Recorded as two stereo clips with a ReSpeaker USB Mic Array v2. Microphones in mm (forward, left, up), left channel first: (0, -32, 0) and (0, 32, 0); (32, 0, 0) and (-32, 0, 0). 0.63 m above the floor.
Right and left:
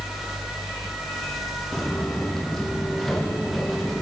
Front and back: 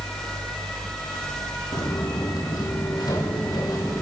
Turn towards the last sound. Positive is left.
turn(degrees=0)